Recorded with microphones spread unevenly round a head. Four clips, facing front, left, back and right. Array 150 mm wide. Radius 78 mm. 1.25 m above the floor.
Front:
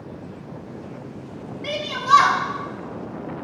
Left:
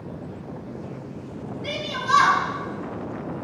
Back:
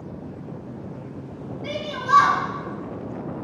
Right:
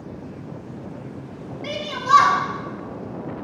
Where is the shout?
45° right, 1.9 m.